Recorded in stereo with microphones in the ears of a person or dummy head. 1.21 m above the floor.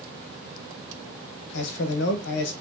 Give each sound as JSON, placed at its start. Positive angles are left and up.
{"t": 1.5, "sound": "a man speaking", "side_deg": 70, "distance_m": 0.8}